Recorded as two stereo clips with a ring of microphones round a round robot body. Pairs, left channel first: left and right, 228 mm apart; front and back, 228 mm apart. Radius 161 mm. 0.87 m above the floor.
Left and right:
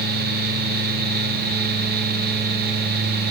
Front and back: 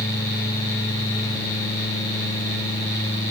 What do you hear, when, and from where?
Only background noise.